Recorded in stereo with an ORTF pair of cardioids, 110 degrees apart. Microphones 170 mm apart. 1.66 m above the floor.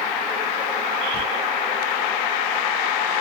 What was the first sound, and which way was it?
A drawer, 10° left.